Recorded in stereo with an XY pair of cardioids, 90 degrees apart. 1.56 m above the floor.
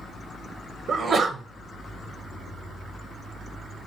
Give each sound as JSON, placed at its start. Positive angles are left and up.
{"t": 0.9, "sound": "a sneeze", "azimuth_deg": -60, "distance_m": 0.5}